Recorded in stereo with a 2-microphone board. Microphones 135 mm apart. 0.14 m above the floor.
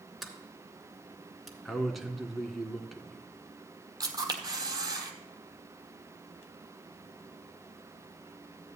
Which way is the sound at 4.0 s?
30° right (ahead or behind).